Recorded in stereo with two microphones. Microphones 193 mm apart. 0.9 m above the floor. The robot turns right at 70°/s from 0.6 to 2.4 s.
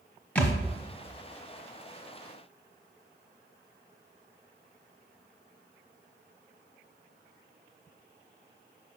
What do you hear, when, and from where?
0.3 s a thud: 5° left (ahead or behind), 1.2 m